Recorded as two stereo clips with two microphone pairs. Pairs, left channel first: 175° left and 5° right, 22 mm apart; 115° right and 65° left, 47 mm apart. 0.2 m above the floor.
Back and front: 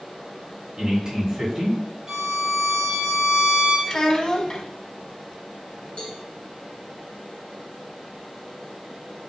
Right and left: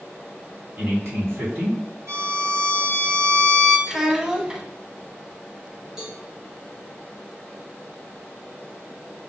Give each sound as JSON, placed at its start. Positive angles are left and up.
{"t": 0.8, "sound": "a man speaking", "azimuth_deg": 60, "distance_m": 2.5}
{"t": 2.1, "sound": "a violin", "azimuth_deg": 65, "distance_m": 2.5}
{"t": 3.9, "sound": "a child speaking", "azimuth_deg": 140, "distance_m": 0.8}
{"t": 6.0, "sound": "a cowbell", "azimuth_deg": 145, "distance_m": 1.7}